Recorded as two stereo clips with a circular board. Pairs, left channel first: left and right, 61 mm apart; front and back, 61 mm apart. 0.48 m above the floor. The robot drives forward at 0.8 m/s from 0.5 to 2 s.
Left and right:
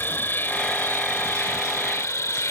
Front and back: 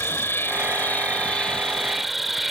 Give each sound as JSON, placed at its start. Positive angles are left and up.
{"t": 0.0, "sound": "an insect", "azimuth_deg": 45}